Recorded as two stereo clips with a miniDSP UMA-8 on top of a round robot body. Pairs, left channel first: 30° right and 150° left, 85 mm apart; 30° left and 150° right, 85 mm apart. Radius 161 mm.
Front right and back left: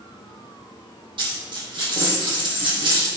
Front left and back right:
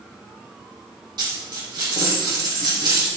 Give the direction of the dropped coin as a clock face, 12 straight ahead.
6 o'clock.